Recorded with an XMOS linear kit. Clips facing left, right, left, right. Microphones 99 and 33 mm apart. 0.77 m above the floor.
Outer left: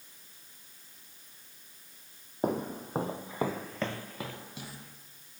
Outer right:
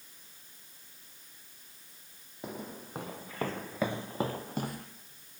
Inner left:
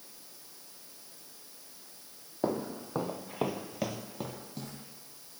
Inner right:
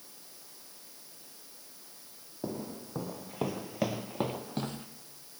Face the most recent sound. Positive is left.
turn(degrees=-55)  # may be behind; listen again after turning